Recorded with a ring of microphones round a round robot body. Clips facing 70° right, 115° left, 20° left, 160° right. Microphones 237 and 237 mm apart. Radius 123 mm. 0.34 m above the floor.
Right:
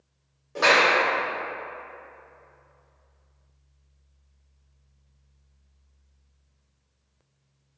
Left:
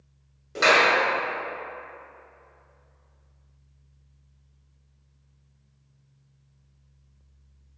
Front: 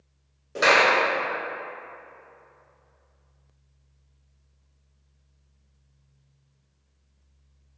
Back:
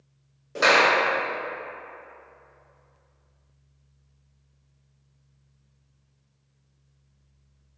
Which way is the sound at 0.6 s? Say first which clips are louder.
Even, even; 110° left.